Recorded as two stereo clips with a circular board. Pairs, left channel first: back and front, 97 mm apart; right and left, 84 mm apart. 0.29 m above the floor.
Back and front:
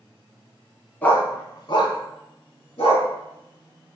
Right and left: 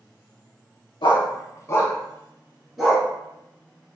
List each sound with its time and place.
1.0 s a dog barking: 105° right, 0.6 m; by 3.1 s 170° left, 1.0 m